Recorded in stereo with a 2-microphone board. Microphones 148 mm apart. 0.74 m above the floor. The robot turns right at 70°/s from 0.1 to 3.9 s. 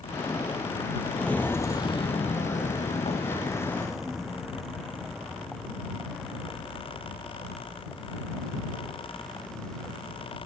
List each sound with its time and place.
1.1 s footsteps: 5° left (ahead or behind)